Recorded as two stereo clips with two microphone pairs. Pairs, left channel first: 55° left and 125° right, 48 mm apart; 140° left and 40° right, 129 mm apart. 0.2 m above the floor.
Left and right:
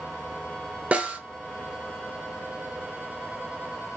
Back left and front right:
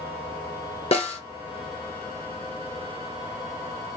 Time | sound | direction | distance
0.9 | a snare drum | 175° left | 0.8 m